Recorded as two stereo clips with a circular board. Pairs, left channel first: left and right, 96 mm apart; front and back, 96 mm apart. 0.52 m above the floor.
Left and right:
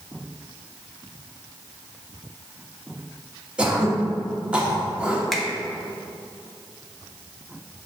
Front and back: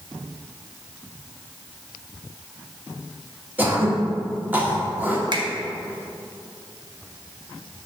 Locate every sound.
3.6 s throat clearing: 150° right, 1.2 m
5.3 s a finger snap: straight behind, 1.0 m